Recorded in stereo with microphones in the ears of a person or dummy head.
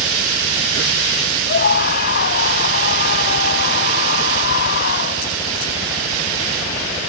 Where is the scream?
55° left (ahead or behind).